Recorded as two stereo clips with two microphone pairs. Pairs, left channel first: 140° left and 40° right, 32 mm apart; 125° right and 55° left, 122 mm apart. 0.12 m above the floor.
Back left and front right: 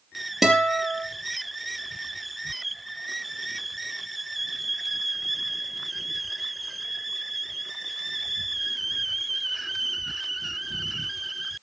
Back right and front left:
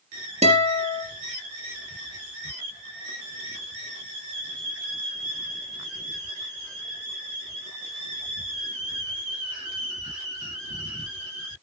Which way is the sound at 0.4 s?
45° left.